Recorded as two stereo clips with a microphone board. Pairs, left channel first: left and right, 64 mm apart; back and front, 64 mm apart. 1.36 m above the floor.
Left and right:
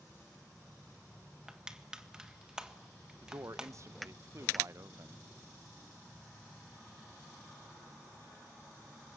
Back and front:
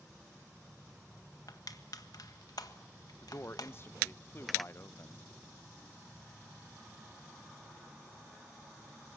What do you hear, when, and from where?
1.5 s crushing: 170° right, 1.5 m
3.2 s a man speaking: 130° right, 0.9 m